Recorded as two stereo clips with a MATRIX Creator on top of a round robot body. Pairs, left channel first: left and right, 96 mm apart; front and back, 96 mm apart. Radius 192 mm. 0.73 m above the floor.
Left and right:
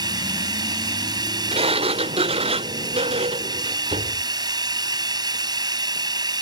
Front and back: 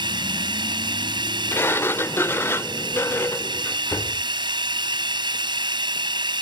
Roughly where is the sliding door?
Right.